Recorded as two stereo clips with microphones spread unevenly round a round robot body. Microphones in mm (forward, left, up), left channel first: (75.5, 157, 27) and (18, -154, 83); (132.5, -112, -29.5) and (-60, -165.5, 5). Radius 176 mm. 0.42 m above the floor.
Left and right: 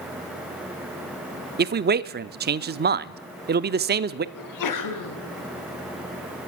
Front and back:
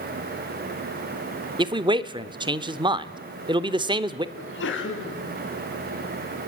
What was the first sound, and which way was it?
A man speaking, 115° right.